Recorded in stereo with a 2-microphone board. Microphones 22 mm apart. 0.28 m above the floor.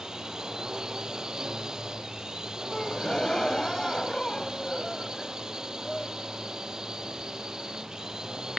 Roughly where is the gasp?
Left.